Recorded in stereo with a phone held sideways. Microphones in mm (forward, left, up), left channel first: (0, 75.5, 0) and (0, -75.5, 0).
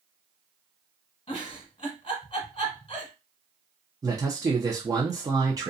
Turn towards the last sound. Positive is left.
turn(degrees=-25)  # may be behind; listen again after turning